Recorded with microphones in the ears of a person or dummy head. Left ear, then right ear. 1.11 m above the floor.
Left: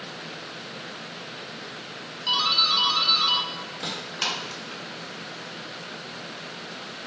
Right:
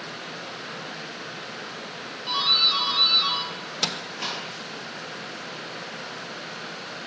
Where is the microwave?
60° right (ahead or behind), 0.6 m.